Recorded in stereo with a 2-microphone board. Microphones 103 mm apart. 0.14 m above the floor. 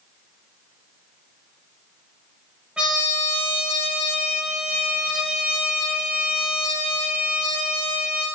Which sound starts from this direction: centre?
A trumpet, at 2.8 s.